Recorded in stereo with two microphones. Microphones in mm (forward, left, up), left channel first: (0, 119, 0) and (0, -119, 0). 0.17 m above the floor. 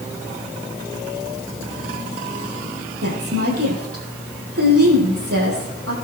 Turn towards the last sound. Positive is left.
turn(degrees=-75)  # may be behind; listen again after turning